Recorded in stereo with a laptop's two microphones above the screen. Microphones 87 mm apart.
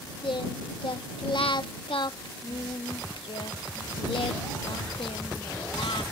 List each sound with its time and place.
0.2 s singing: 85° left